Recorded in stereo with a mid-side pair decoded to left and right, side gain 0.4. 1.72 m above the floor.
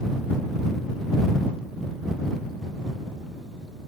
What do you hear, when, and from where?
Only background noise.